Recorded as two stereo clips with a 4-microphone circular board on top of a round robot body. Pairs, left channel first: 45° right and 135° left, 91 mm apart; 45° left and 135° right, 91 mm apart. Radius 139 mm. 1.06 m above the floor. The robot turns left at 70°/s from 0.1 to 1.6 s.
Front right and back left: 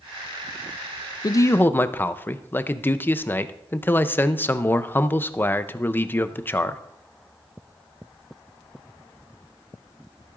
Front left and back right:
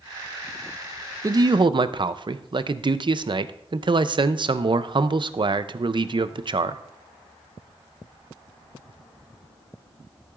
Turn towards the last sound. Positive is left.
turn(degrees=-110)